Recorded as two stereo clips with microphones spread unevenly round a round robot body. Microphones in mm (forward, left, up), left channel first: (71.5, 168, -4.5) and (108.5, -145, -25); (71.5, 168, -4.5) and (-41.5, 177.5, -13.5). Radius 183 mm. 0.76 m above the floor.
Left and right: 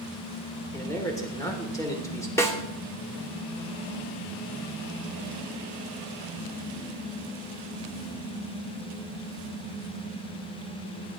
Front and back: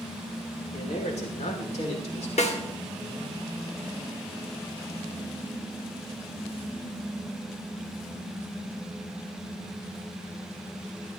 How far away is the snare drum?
About 1.9 m.